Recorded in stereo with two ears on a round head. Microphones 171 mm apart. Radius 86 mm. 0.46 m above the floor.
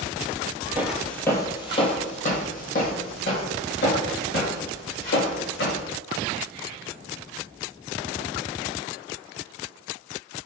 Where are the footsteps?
10° right (ahead or behind), 0.6 m; by 5.8 s 70° left (ahead or behind), 2.5 m.